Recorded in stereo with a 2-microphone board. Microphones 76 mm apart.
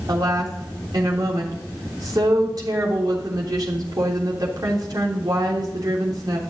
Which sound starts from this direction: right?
A woman speaking, at 0.1 s.